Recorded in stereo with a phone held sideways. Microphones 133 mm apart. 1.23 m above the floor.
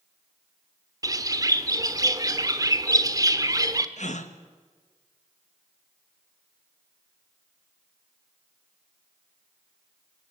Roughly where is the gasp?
Left.